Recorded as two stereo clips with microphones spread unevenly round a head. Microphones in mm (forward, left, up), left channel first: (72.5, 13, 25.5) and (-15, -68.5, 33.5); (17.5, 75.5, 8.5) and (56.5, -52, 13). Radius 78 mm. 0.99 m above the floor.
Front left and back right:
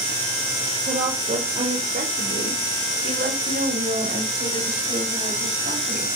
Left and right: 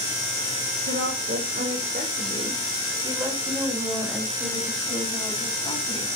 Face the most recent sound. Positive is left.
turn(degrees=175)